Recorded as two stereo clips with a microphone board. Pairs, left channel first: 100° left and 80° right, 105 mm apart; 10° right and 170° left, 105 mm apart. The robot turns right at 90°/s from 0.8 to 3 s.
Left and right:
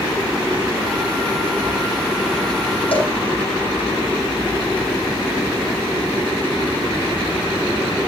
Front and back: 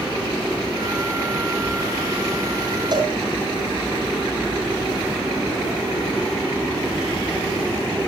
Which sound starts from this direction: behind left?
A cowbell, at 2.9 s.